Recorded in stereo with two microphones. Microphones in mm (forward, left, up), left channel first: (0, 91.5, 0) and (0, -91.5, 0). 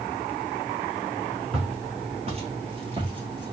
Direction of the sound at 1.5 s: 35° right (ahead or behind).